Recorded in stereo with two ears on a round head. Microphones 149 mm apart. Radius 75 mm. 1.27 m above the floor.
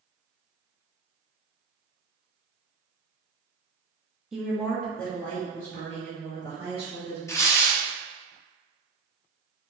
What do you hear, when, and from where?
4.3 s a woman speaking: 5° right (ahead or behind), 0.7 m; by 7.2 s 15° left (ahead or behind), 2 m
7.3 s tearing paper: 20° left (ahead or behind), 0.7 m